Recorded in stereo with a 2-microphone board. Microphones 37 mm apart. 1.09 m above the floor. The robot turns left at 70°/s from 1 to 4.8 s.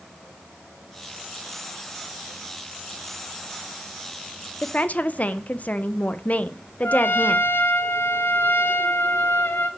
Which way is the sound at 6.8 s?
75° left (ahead or behind).